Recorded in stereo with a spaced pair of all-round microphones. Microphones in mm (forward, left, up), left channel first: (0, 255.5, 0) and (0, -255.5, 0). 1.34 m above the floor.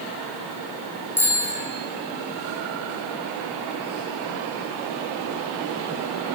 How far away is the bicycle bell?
About 5.5 m.